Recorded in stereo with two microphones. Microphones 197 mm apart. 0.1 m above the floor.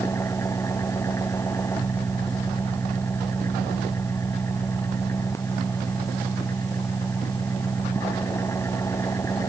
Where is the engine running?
15° left (ahead or behind).